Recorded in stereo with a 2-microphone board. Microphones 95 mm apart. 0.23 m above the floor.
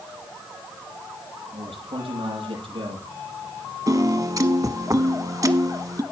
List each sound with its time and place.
1.5 s a man speaking: 70° right (ahead or behind), 8 m
3.9 s a piano: 40° right (ahead or behind), 0.9 m